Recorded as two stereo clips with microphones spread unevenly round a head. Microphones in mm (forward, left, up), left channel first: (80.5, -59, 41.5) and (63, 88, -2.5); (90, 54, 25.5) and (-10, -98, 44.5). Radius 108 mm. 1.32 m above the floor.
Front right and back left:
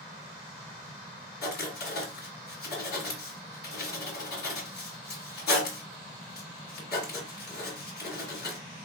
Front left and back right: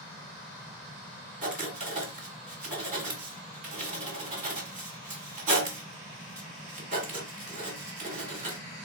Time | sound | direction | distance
1.4 | writing | 75° right | 2 m